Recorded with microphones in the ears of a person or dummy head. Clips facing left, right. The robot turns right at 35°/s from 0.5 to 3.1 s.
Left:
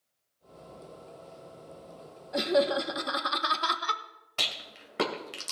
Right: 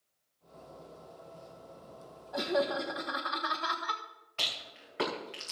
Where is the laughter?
30° left (ahead or behind), 1.2 m; by 4.0 s 55° left (ahead or behind), 1.2 m.